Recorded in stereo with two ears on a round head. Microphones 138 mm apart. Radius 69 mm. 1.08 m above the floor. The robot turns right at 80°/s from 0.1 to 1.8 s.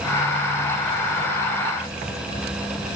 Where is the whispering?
No whispering in this recording.